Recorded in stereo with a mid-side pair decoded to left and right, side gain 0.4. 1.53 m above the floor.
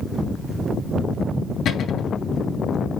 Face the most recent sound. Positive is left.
turn(degrees=65)